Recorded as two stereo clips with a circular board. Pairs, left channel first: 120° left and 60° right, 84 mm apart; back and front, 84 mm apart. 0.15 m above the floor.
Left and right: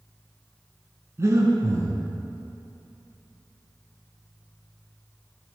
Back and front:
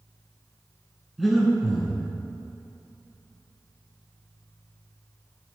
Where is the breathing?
90° right, 1.0 m.